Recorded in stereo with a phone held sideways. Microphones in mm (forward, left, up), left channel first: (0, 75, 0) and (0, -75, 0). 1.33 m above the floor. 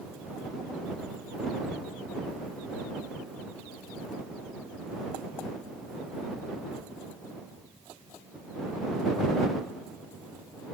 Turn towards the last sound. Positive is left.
No sound to turn to.